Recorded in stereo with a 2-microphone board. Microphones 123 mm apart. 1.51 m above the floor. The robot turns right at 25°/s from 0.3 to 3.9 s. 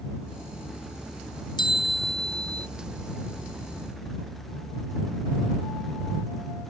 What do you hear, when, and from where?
1.6 s a bell: 40° left (ahead or behind); by 2.7 s 65° left (ahead or behind)